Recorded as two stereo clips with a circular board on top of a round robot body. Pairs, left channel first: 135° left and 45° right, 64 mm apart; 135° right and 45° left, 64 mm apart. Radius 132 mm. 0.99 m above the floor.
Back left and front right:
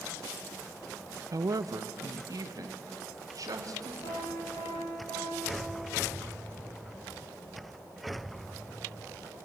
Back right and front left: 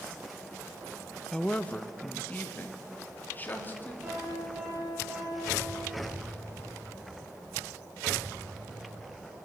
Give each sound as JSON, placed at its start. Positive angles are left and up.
{"t": 1.3, "sound": "a woman speaking", "azimuth_deg": -60, "distance_m": 0.8}
{"t": 4.0, "sound": "a piano", "azimuth_deg": 130, "distance_m": 10.0}